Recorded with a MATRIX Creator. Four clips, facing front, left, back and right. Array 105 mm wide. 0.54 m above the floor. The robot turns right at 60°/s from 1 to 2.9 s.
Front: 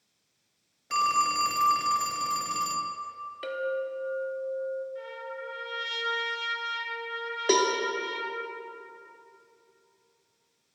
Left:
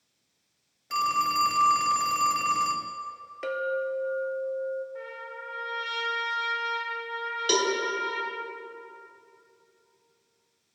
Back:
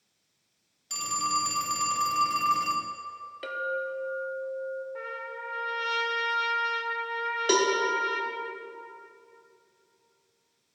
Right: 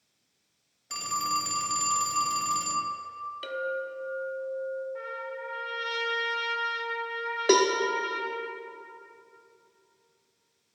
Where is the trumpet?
175° right, 0.9 m.